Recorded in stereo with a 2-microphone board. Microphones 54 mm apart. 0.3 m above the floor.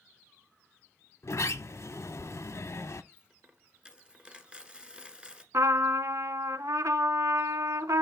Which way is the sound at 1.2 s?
65° left (ahead or behind).